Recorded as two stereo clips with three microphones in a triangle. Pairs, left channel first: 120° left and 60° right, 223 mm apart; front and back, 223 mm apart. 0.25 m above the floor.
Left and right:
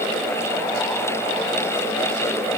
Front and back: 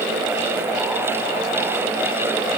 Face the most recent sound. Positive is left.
No sound to turn to.